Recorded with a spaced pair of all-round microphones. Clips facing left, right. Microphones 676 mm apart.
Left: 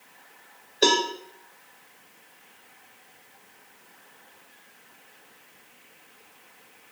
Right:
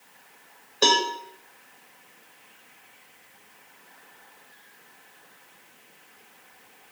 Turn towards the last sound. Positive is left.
turn(degrees=-35)  # may be behind; listen again after turning